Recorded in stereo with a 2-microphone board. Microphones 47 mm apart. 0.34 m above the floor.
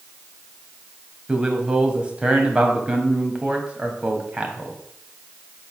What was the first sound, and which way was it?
A man speaking, 20° right (ahead or behind).